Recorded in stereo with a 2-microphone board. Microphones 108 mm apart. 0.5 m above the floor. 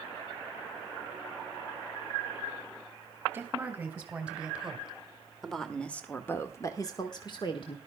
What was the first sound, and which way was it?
A woman speaking, 15° right (ahead or behind).